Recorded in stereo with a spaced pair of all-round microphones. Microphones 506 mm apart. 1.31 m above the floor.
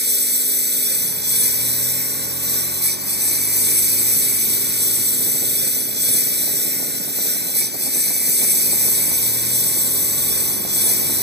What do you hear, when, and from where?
0.0 s a lawn mower: 20° right (ahead or behind)